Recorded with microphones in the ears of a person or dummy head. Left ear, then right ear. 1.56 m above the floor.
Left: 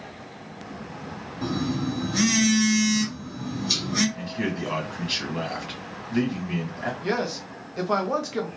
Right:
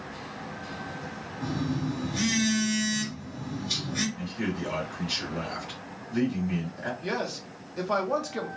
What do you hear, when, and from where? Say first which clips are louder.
1.4 s a phone buzzing: left 4 dB; 50° left (ahead or behind), 1.9 m
4.2 s a man speaking: left 4 dB; 15° left (ahead or behind), 1.6 m
7.0 s a man speaking: left 5 dB; 5° left (ahead or behind), 0.6 m